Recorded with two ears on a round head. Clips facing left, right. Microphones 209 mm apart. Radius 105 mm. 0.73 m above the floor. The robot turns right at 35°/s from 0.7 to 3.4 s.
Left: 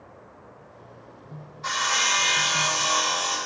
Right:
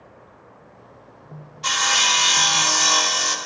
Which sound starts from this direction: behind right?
Sawing, at 1.6 s.